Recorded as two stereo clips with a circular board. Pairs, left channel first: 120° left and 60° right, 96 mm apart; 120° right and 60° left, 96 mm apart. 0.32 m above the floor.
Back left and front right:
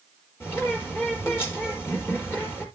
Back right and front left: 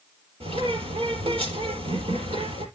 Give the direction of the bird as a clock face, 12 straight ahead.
10 o'clock.